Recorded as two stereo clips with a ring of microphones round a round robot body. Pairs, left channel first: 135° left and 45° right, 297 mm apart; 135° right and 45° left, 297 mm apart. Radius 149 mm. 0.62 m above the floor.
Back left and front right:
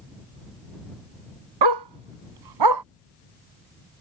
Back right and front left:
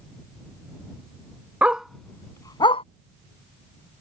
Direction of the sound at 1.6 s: 40° right.